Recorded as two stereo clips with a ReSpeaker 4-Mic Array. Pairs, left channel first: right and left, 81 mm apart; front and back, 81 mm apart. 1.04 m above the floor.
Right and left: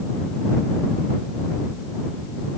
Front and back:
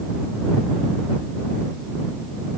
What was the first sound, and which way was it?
Only background noise.